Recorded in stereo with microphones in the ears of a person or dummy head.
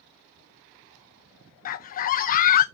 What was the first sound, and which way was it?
A scream, 45° left (ahead or behind).